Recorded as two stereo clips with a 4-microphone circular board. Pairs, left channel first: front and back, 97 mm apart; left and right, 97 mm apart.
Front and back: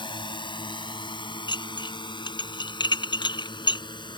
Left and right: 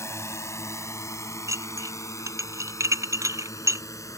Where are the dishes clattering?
35° right.